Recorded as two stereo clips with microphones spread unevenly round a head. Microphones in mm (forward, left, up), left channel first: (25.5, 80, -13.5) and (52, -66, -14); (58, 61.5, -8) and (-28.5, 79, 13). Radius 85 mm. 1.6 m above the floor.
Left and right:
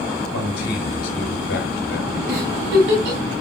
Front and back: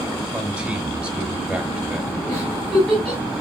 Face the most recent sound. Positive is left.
turn(degrees=-105)